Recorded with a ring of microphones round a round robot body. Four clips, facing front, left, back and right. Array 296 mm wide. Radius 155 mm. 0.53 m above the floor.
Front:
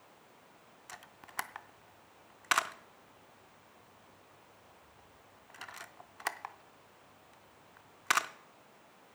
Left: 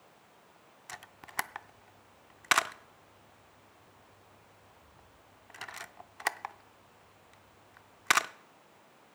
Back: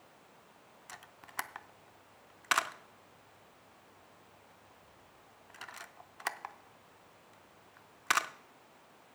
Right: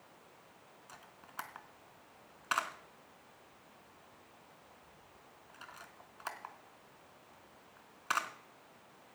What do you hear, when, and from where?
0.9 s a camera shutter: 90° left, 0.5 m